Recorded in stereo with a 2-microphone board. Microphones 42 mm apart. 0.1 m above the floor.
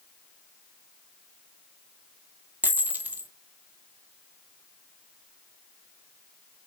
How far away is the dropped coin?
About 0.8 m.